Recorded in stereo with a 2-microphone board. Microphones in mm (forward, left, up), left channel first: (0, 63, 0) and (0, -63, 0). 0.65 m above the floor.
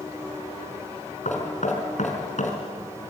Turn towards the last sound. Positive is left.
turn(degrees=75)  # may be behind; listen again after turning